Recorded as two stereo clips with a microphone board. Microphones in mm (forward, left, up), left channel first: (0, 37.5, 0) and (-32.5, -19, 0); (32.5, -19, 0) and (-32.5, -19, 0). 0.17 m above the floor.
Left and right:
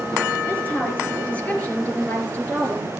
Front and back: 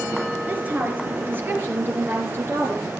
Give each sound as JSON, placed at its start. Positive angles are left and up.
{"t": 0.5, "sound": "a woman speaking", "azimuth_deg": 120, "distance_m": 3.0}